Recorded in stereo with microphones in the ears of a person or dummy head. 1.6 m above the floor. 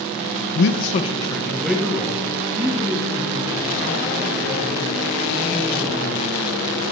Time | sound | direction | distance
0.6 | a man speaking | 55° left (ahead or behind) | 0.8 m